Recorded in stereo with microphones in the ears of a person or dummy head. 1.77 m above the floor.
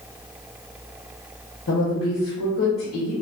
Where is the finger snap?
No finger snap in this recording.